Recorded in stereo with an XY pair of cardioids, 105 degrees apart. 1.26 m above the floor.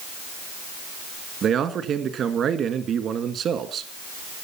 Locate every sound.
1.4 s a man speaking: 60° right, 1.7 m